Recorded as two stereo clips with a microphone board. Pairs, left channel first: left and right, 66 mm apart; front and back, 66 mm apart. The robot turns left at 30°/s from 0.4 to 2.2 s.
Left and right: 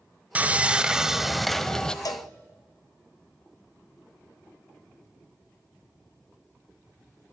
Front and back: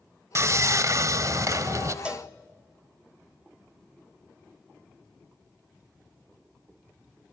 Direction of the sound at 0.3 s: 150° right.